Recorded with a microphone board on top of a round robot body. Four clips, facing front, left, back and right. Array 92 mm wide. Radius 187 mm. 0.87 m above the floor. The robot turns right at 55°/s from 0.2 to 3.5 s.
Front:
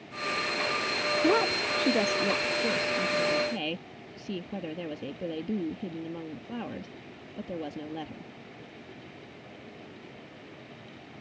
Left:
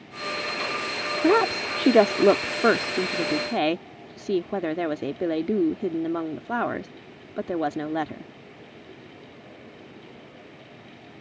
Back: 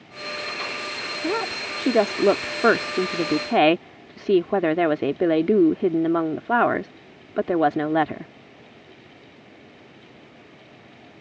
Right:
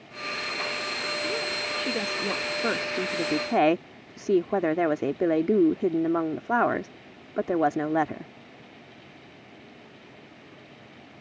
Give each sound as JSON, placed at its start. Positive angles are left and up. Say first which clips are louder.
{"t": 1.2, "sound": "a woman speaking", "louder": "left 10 dB, even", "azimuth_deg": 80}